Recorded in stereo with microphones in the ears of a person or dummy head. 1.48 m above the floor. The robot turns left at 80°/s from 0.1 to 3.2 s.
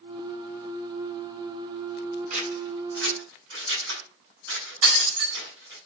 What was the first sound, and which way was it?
Scissors, 40° right (ahead or behind).